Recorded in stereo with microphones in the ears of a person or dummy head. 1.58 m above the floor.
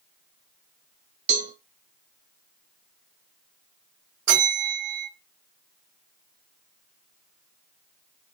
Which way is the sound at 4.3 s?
55° right (ahead or behind).